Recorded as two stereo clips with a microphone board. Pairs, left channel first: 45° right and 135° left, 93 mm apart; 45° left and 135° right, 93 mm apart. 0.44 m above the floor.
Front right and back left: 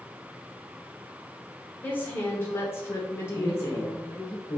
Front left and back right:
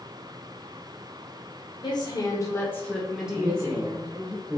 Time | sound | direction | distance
1.8 | a woman speaking | 20° left | 1.3 m
3.4 | a man speaking | 60° right | 1.3 m